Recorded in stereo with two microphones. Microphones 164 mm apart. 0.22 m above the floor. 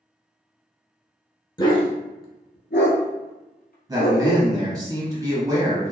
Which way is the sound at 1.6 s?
25° left (ahead or behind).